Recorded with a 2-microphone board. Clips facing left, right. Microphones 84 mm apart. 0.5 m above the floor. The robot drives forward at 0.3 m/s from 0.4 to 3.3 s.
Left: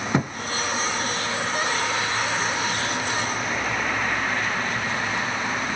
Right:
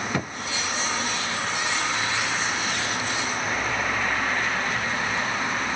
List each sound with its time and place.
0.1 s a thud: 20° left (ahead or behind), 0.6 m